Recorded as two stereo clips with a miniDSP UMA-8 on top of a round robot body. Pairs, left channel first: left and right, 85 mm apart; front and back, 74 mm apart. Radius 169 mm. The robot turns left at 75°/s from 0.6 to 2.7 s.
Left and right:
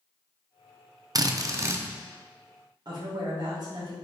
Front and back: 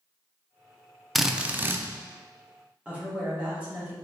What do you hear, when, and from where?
1.1 s a drill: 90° right, 0.6 m; by 1.9 s 145° right, 0.6 m
2.9 s a woman speaking: 115° right, 1.6 m